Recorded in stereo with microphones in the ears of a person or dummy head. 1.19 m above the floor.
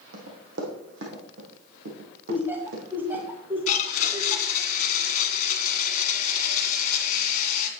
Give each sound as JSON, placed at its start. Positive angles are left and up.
{"t": 0.1, "sound": "running footsteps", "side_deg": -60, "distance_m": 2.5}
{"t": 2.3, "sound": "laughter", "side_deg": -10, "distance_m": 1.7}
{"t": 3.7, "sound": "a blender", "side_deg": 45, "distance_m": 1.7}